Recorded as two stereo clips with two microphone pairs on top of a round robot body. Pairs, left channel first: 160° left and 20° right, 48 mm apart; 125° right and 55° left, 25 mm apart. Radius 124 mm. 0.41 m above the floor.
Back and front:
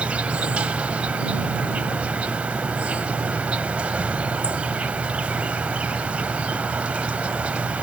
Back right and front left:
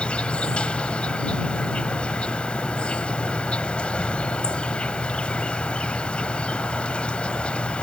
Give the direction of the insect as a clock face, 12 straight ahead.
3 o'clock.